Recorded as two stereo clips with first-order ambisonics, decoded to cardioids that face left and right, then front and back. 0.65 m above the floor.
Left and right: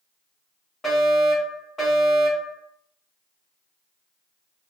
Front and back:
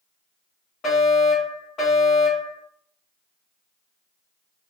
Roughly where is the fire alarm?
Ahead left.